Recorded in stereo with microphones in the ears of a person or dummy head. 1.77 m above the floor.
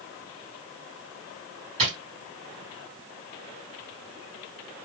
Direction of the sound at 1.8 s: 35° right (ahead or behind).